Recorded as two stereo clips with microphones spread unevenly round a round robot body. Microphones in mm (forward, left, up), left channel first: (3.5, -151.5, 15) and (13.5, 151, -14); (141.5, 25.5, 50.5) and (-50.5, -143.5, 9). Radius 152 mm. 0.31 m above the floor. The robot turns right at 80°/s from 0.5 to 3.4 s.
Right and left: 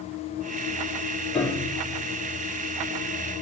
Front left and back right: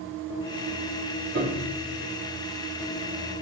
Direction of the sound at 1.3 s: Straight behind.